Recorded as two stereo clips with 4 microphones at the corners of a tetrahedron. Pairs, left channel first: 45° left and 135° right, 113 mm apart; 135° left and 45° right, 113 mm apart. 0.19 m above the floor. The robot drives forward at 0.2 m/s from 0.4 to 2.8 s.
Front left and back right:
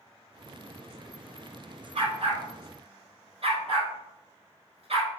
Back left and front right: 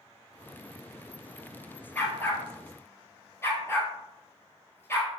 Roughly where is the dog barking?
Behind right.